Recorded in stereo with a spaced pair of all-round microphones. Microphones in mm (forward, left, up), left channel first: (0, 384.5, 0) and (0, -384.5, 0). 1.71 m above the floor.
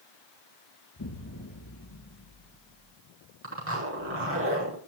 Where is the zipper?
15° right (ahead or behind), 5 m.